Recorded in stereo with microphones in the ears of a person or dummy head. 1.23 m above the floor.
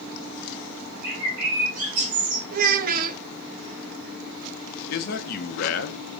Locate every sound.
1.0 s a bird: 50° right (ahead or behind), 3 m
2.5 s a child speaking: 45° right (ahead or behind), 0.6 m
4.9 s a man speaking: 55° left (ahead or behind), 0.8 m